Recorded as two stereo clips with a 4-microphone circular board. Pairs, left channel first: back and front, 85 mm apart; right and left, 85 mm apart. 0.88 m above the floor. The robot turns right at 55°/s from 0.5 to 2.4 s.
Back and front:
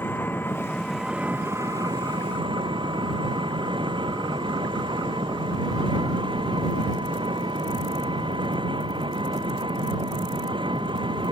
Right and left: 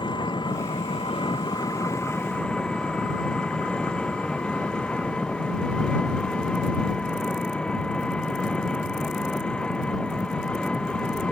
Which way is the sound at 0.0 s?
115° right.